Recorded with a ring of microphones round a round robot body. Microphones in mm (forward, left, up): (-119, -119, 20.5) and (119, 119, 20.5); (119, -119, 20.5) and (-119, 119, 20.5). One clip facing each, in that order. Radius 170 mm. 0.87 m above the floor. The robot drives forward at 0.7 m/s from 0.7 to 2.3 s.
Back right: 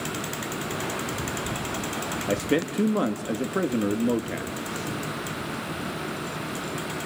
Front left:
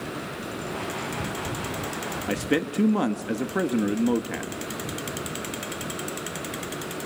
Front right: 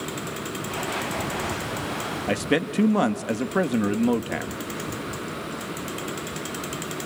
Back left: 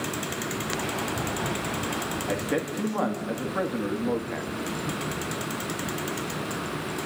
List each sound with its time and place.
2.3 s a man speaking: 35° right, 1.6 m